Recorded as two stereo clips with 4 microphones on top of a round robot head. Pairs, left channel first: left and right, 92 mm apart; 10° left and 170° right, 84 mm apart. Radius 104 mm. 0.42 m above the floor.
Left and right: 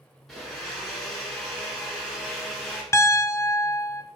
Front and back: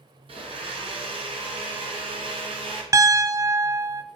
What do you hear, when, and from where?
0.3 s a blender: straight behind, 1.1 m
2.9 s a piano: 145° left, 0.5 m